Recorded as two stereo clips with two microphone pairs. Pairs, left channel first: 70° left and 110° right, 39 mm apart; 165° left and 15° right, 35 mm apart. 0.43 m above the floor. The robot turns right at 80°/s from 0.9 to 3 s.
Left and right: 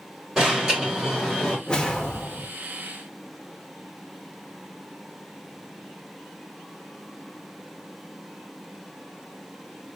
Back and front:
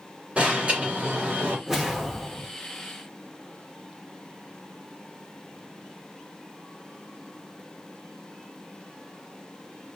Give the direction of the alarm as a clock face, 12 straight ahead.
1 o'clock.